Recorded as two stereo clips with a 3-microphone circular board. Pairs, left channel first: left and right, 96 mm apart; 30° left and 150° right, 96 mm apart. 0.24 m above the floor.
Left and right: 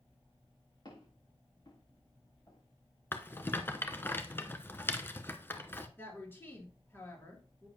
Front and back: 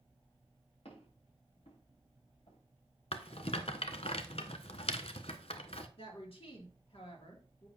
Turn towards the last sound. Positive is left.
turn(degrees=25)